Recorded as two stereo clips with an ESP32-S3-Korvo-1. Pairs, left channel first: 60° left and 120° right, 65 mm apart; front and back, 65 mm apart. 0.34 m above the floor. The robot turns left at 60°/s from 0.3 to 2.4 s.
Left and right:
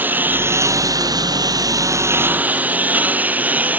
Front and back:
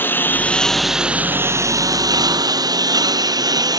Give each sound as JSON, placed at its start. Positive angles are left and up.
{"t": 0.0, "sound": "a lawn mower", "azimuth_deg": -60}